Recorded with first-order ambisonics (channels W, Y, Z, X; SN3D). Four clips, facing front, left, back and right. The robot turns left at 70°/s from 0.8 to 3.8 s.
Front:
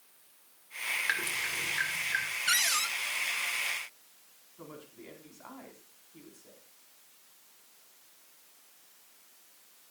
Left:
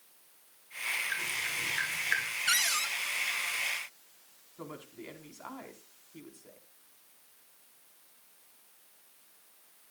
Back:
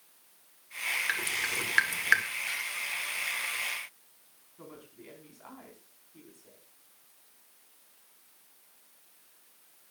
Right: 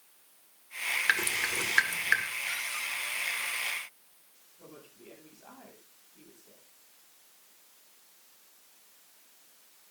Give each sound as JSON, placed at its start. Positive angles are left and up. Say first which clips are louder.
{"t": 1.1, "sound": "dripping", "louder": "right 5 dB, back 1 dB", "azimuth_deg": -85, "distance_m": 2.0}
{"t": 2.5, "sound": "a cupboard door", "louder": "left 5 dB, front 6 dB", "azimuth_deg": 50, "distance_m": 0.7}
{"t": 4.6, "sound": "a woman speaking", "louder": "left 7 dB, front 1 dB", "azimuth_deg": 85, "distance_m": 4.5}